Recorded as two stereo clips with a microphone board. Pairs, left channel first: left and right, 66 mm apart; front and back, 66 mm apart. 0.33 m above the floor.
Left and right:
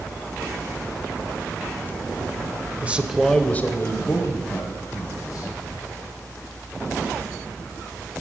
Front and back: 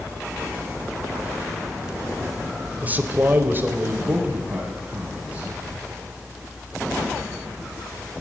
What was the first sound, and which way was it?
A man speaking, 135° right.